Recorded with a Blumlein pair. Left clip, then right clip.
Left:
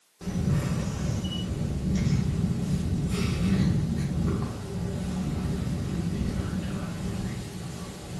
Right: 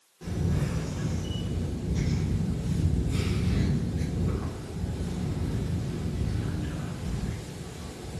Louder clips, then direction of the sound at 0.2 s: Left 2 dB; 65° left.